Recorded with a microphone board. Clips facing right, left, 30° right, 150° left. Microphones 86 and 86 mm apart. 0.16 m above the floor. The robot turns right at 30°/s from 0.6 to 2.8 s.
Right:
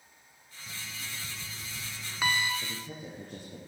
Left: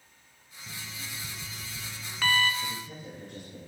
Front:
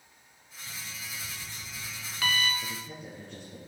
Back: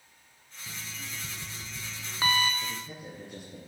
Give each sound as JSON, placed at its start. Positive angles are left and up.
{"t": 0.7, "sound": "an alarm clock", "azimuth_deg": 150, "distance_m": 0.7}
{"t": 2.6, "sound": "a man speaking", "azimuth_deg": -140, "distance_m": 3.0}